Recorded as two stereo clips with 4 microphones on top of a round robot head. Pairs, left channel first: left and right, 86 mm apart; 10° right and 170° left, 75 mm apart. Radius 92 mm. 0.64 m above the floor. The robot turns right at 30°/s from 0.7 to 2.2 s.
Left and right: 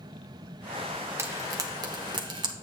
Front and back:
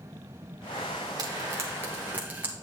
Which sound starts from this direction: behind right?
Frying, at 1.2 s.